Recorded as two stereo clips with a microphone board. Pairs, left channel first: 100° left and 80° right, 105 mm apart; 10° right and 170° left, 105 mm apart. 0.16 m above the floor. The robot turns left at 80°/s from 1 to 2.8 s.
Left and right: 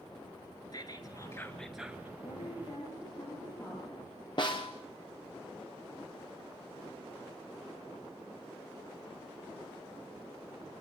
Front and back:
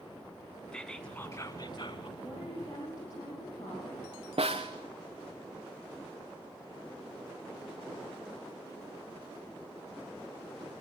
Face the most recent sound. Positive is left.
turn(degrees=145)